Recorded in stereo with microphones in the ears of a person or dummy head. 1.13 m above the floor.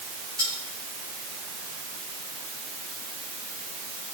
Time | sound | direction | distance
0.4 | cutlery clinking | 20° right (ahead or behind) | 6.5 m